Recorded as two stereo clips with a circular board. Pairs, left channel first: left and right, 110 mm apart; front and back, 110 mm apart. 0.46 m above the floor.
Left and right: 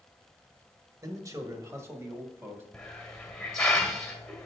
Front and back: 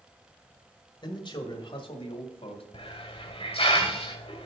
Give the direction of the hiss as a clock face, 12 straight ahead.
12 o'clock.